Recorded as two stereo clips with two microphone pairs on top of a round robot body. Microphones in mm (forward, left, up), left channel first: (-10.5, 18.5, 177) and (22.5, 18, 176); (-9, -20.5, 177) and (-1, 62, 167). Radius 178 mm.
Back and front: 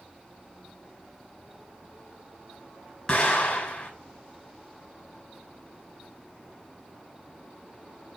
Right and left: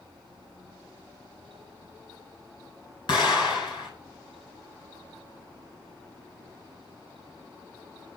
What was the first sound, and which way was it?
An explosion, 115° right.